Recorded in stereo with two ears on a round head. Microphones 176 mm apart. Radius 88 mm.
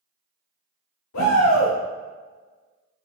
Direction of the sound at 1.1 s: 80° left.